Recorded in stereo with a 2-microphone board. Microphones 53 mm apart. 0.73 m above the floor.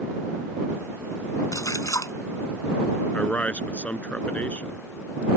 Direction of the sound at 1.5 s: 75° left (ahead or behind).